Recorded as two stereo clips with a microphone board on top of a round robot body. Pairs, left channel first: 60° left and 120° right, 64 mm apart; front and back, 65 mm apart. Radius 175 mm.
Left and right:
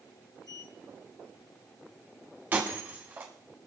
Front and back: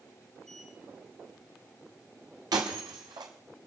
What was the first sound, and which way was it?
A sliding door, 85° left.